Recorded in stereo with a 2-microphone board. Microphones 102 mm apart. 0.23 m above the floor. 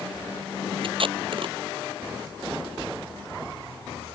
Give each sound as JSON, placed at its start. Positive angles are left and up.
{"t": 0.8, "sound": "tape being pulled", "side_deg": -60}